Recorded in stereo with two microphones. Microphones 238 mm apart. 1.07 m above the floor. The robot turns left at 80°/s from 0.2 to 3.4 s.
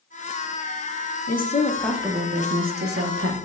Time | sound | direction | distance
1.3 | a woman speaking | 50° left | 0.7 m